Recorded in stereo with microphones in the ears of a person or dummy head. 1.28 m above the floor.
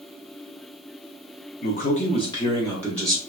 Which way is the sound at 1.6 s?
50° left (ahead or behind).